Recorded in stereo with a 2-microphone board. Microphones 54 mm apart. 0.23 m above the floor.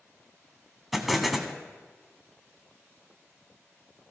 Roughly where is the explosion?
Centre.